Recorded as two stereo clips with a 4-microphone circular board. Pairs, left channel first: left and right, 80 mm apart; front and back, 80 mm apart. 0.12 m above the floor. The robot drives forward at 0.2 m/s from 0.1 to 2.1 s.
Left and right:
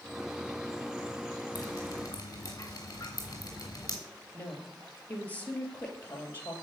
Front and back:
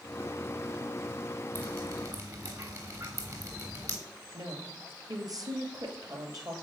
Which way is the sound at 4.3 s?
155° left.